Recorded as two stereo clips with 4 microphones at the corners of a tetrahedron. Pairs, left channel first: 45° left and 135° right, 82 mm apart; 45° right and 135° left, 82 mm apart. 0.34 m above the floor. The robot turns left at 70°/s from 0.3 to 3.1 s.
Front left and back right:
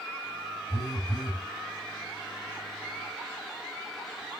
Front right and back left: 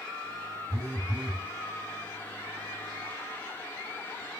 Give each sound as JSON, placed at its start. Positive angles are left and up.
{"t": 0.7, "sound": "a phone buzzing", "azimuth_deg": 90, "distance_m": 0.7}